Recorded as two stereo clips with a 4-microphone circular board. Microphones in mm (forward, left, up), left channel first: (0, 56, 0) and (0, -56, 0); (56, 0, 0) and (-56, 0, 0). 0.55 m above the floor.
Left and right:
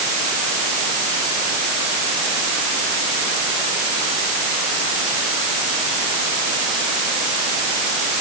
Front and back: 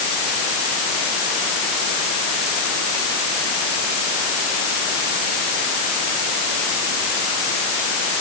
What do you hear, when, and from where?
Only background noise.